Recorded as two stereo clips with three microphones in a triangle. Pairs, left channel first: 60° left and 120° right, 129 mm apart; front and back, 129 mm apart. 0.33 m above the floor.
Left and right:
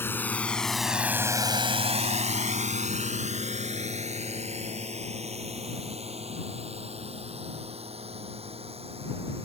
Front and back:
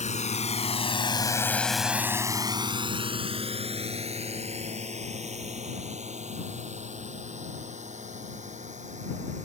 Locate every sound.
0.0 s a drone: 10° right; by 9.5 s 160° right